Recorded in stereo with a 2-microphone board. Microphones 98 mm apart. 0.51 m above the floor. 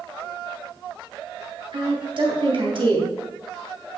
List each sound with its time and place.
1.7 s a woman speaking: 60° right (ahead or behind), 3 m